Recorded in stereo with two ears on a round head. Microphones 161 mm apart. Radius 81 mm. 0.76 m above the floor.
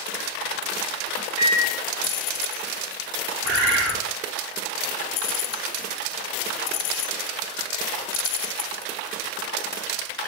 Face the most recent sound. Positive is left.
turn(degrees=-65)  # may be behind; listen again after turning